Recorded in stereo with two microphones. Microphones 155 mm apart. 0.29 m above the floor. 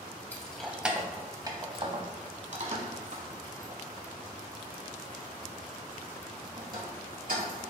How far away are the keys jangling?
About 1.0 m.